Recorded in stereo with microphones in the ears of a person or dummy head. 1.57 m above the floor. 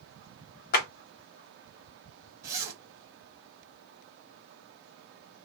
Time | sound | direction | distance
0.7 | a clap | 50° left (ahead or behind) | 1.3 m
2.4 | a zipper | 15° right (ahead or behind) | 1.3 m